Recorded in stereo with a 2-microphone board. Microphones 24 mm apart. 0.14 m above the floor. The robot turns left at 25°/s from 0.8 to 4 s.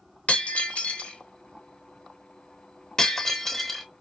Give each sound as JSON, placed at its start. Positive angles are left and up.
{"t": 0.3, "sound": "breaking glass", "side_deg": 80, "distance_m": 0.9}